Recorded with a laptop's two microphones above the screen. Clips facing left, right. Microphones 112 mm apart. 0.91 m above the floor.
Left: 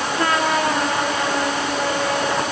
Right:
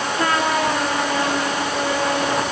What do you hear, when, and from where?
Only background noise.